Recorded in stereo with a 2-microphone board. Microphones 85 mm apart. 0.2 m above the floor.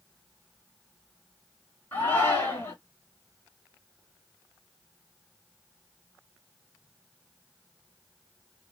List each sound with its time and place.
1.9 s a shout: 25° left (ahead or behind), 2.5 m